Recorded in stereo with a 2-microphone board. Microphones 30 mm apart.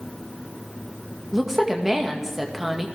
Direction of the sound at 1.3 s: 10° right (ahead or behind).